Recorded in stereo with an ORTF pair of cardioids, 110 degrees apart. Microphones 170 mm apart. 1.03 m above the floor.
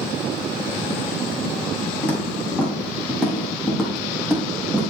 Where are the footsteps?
15° left, 5.5 m; by 4.9 s 5° right, 4.5 m.